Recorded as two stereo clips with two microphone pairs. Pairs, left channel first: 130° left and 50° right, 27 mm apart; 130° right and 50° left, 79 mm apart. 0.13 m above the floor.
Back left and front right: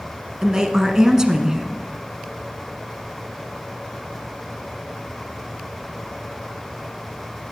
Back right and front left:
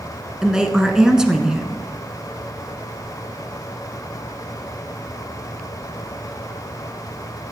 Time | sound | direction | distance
0.4 | a woman speaking | 25° right | 1.1 m